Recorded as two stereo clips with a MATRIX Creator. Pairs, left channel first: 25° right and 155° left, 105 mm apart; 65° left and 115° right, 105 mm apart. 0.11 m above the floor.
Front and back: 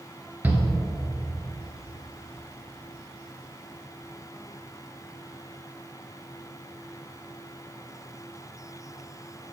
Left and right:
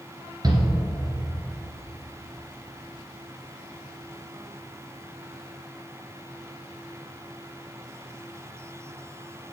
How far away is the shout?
About 2 m.